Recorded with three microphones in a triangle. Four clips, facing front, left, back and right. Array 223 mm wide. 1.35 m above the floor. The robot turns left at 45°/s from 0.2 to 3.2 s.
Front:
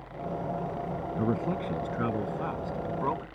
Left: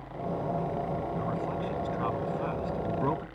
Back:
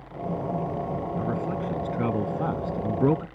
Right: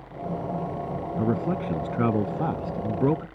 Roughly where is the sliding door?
I don't hear a sliding door.